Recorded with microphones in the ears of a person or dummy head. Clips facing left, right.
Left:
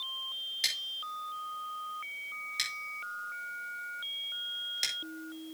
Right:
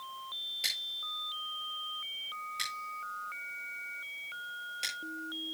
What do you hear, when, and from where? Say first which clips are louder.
0.6 s scissors: left 4 dB; 20° left (ahead or behind), 8 m